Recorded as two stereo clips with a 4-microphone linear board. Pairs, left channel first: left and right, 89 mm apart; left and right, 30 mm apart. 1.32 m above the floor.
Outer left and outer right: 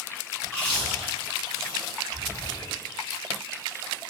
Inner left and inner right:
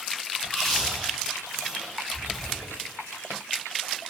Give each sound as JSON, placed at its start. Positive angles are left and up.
{"t": 0.4, "sound": "chewing", "side_deg": 10, "distance_m": 1.6}